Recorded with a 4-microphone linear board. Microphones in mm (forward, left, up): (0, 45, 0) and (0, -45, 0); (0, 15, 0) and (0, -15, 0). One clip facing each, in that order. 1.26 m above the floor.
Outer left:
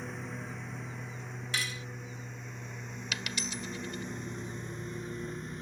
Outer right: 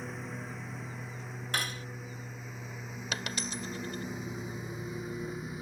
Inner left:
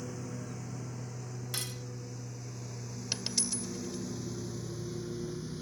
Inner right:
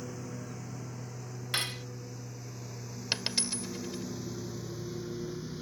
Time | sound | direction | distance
0.0 | a lawn mower | centre (ahead or behind) | ?
1.5 | cutlery clinking | 45° right (ahead or behind) | ?
3.1 | a dropped coin | 40° right (ahead or behind) | ?